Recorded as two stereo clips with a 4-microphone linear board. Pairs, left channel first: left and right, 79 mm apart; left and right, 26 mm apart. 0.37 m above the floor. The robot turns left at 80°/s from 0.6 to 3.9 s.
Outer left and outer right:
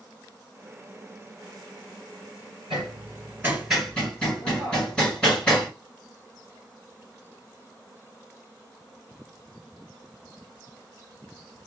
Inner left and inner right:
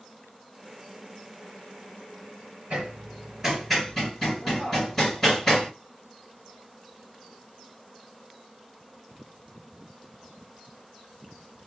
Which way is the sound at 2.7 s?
80° right.